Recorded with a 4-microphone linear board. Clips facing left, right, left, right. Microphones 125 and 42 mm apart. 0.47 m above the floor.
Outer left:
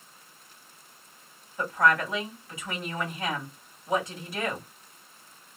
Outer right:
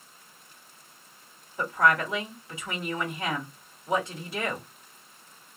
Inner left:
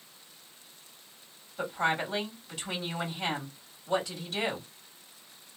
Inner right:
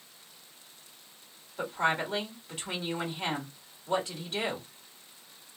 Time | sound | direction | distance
1.6 | a woman speaking | 25° right (ahead or behind) | 1.8 m